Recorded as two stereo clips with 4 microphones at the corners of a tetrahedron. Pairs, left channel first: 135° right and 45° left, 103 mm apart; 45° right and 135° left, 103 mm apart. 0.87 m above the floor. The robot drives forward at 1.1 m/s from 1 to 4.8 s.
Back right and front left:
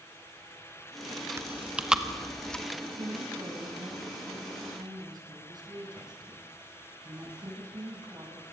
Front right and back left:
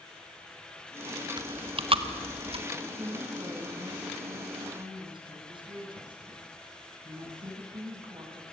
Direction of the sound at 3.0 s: 80° left.